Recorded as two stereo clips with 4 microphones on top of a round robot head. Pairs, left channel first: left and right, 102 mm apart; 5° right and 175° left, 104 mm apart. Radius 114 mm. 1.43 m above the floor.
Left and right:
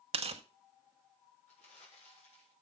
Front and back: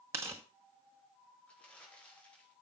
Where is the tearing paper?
110° right, 1.0 m.